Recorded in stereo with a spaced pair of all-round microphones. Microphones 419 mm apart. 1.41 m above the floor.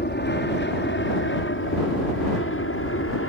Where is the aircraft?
25° left (ahead or behind); by 3.3 s 30° left (ahead or behind).